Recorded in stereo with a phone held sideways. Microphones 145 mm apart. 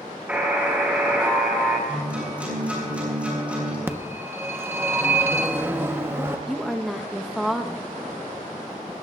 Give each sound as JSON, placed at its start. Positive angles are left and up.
{"t": 0.3, "sound": "a buzzer", "side_deg": -10, "distance_m": 5.0}
{"t": 1.9, "sound": "a guitar", "side_deg": -10, "distance_m": 8.0}
{"t": 3.9, "sound": "a phone ringing", "side_deg": -15, "distance_m": 1.1}
{"t": 6.5, "sound": "a woman speaking", "side_deg": 0, "distance_m": 1.1}